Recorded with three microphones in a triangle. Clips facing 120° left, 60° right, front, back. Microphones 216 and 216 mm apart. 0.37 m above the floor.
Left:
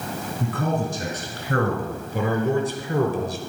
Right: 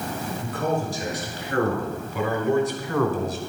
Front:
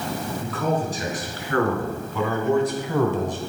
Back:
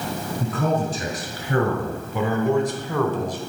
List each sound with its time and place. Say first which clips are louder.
0.4 s a man speaking: left 1 dB, back 2 dB; 140° left, 2.5 m; by 3.4 s 30° left, 1.1 m